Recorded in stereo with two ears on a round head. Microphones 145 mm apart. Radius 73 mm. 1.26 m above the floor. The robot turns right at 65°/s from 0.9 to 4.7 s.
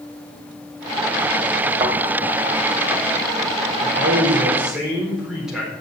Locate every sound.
1.8 s a thud: 25° right (ahead or behind), 3 m; by 1.9 s 35° right (ahead or behind), 3 m
3.8 s a man speaking: 60° right, 4 m; by 5.7 s 5° right, 4 m